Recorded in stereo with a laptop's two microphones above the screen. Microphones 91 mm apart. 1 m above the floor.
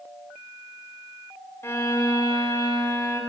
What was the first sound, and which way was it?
A violin, 25° left (ahead or behind).